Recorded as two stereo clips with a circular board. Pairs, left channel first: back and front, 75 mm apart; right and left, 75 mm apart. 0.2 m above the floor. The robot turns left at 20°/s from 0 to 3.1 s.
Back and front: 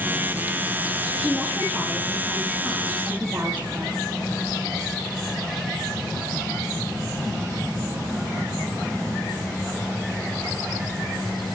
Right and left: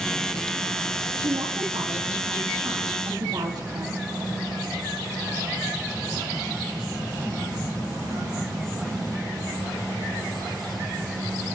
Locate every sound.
1.2 s a woman speaking: 105° left, 6.5 m; by 4.0 s 65° left, 6.5 m